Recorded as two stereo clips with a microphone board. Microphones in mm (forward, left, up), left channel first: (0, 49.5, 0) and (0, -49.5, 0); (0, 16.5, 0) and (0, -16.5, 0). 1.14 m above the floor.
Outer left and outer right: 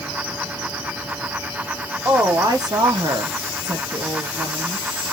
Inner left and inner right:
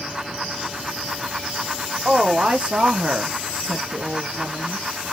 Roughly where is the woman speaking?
Right.